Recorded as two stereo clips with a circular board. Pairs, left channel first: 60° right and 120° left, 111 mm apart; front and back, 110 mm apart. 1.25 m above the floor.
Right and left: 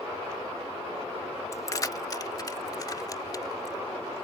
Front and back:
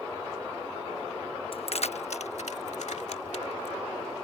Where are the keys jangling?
5° right.